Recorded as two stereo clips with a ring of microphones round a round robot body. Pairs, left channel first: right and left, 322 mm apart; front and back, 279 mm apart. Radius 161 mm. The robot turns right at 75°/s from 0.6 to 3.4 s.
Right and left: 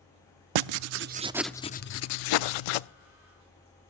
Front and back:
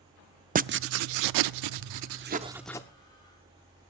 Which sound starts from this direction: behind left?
Writing, at 0.6 s.